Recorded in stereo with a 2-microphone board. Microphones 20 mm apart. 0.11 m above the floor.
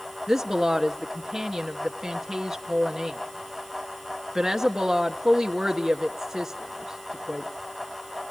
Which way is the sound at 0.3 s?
20° right (ahead or behind).